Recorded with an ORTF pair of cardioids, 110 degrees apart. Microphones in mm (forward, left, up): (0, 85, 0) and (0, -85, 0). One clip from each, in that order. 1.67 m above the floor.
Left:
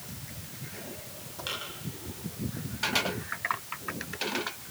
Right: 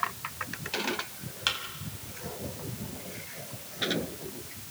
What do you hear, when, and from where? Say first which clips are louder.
1.5 s a thud: right 6 dB; 55° right, 5.5 m